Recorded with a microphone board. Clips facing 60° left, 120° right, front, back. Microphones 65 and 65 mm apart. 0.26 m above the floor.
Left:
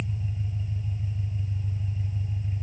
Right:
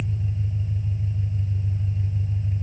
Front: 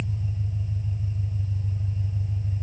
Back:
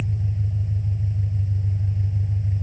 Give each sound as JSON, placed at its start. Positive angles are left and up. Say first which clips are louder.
{"t": 0.0, "sound": "an engine running", "louder": "right 4 dB, back 3 dB", "azimuth_deg": -145, "distance_m": 3.5}